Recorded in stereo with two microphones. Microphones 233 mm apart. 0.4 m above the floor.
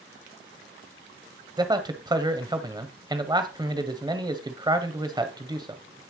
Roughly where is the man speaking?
Centre.